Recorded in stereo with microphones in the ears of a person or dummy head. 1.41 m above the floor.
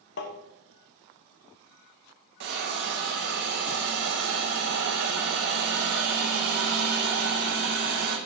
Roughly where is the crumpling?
I don't hear crumpling.